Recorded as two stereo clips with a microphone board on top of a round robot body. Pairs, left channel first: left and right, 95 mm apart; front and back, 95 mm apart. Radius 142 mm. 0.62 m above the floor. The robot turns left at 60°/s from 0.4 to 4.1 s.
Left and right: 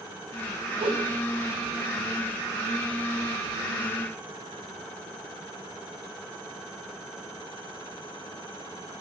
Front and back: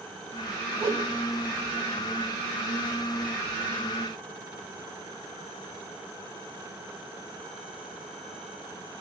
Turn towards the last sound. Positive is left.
turn(degrees=45)